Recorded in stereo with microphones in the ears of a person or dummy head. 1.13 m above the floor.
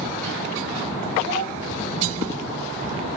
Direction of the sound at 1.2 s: 65° right (ahead or behind).